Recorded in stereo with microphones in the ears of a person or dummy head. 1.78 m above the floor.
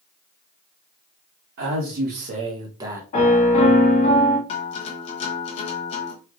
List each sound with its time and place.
1.6 s a man speaking: 60° right (ahead or behind), 0.9 m; by 3.0 s 10° right (ahead or behind), 0.7 m
3.1 s a piano: 35° left (ahead or behind), 0.9 m
4.5 s a guitar: 40° left (ahead or behind), 0.6 m